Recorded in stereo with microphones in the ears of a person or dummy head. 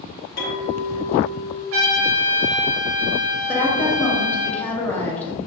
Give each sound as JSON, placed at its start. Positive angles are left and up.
{"t": 0.4, "sound": "a clink", "side_deg": 60, "distance_m": 1.4}
{"t": 1.7, "sound": "a trumpet", "side_deg": -75, "distance_m": 0.7}
{"t": 3.5, "sound": "a woman speaking", "side_deg": 10, "distance_m": 0.6}